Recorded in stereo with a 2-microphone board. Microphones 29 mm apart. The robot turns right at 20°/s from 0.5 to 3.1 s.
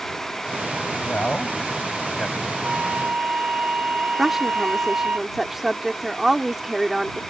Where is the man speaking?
50° left (ahead or behind); by 2.5 s 20° left (ahead or behind).